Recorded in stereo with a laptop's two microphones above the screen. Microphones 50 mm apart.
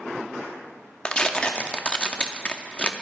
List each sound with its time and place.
1.1 s tearing paper: 20° left (ahead or behind), 0.9 m